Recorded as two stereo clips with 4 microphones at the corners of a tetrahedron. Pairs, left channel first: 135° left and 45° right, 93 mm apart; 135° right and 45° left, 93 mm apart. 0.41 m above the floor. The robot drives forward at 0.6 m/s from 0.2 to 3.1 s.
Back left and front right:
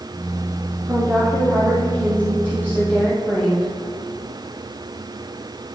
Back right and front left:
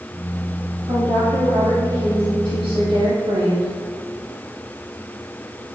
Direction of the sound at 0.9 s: 20° left.